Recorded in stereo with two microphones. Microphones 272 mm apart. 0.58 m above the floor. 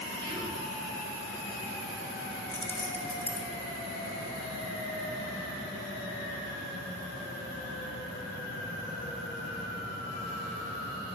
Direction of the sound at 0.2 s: 15° right (ahead or behind).